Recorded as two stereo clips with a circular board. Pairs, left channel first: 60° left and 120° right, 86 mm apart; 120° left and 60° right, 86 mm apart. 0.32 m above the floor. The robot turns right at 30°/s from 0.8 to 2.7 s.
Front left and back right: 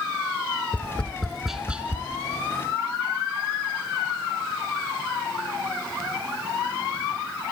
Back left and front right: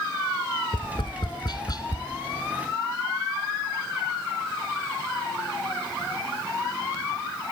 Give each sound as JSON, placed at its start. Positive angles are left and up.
{"t": 0.7, "sound": "tapping", "azimuth_deg": 130, "distance_m": 1.0}